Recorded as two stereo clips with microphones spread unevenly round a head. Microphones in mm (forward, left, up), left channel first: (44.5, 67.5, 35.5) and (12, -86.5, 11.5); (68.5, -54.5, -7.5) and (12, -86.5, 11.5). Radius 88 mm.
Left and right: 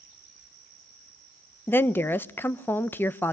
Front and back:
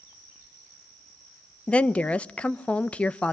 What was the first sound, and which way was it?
A woman speaking, 5° right.